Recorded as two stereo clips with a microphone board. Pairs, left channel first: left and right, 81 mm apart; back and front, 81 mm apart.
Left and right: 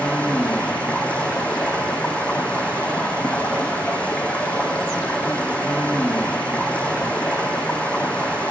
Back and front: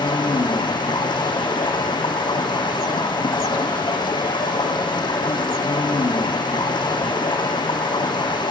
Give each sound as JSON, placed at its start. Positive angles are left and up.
{"t": 0.0, "sound": "running water", "azimuth_deg": 165, "distance_m": 1.5}